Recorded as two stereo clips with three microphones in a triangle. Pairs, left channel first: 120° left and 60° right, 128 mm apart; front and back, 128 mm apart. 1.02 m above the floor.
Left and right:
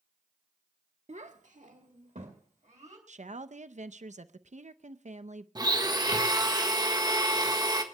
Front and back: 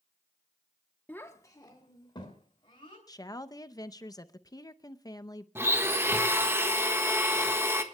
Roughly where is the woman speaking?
Ahead right.